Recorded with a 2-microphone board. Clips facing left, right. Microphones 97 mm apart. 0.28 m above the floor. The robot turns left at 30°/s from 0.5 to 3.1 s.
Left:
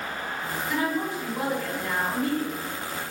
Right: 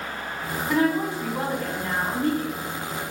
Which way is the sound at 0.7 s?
95° right.